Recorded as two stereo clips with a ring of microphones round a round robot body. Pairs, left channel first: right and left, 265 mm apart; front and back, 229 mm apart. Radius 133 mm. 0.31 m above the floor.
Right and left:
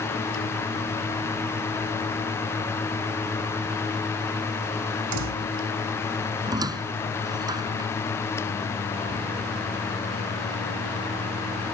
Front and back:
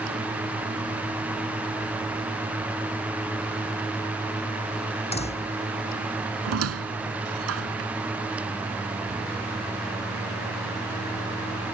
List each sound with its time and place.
5.1 s a door slam: 65° left
6.5 s a squeak: 165° left